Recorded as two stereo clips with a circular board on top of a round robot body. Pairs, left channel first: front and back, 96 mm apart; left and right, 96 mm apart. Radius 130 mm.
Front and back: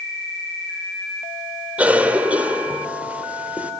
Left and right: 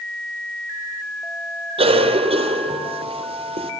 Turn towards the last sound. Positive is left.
turn(degrees=-105)